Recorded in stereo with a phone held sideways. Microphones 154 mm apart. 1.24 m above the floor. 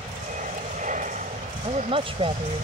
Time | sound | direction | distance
0.0 | an aircraft | 55° right (ahead or behind) | ?
1.6 | a woman speaking | 35° right (ahead or behind) | ?